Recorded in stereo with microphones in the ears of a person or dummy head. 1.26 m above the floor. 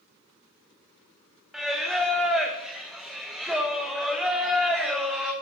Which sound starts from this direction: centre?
Singing, at 1.5 s.